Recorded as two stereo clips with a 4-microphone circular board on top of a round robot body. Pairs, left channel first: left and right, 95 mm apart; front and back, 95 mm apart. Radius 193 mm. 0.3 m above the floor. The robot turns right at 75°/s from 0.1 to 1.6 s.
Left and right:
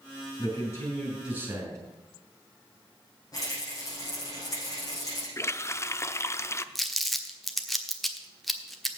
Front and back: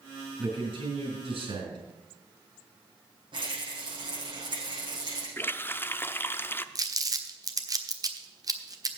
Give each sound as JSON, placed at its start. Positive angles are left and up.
{"t": 0.4, "sound": "a man speaking", "azimuth_deg": 125, "distance_m": 4.5}
{"t": 3.3, "sound": "a rattle", "azimuth_deg": 145, "distance_m": 6.5}
{"t": 5.4, "sound": "a running tap", "azimuth_deg": 50, "distance_m": 0.8}
{"t": 6.8, "sound": "crumpling", "azimuth_deg": 180, "distance_m": 1.5}